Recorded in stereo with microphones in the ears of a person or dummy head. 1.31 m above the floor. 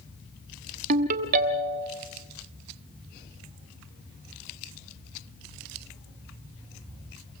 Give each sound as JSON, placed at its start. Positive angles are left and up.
{"t": 0.9, "sound": "a ringtone", "side_deg": -45, "distance_m": 1.2}